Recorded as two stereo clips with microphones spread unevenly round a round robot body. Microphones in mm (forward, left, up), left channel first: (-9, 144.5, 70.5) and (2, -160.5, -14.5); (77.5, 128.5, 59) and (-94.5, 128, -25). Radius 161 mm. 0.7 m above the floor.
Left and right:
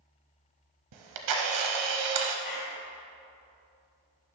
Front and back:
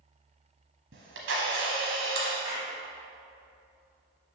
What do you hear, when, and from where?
0.9 s a camera shutter: 120° right, 0.8 m
2.5 s a clap: 125° left, 2.5 m